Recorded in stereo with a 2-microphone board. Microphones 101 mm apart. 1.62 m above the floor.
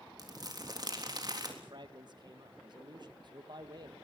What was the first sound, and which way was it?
Crumpling, 45° right (ahead or behind).